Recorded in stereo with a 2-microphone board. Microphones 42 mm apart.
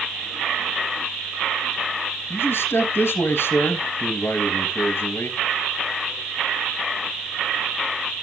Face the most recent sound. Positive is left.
turn(degrees=65)  # may be behind; listen again after turning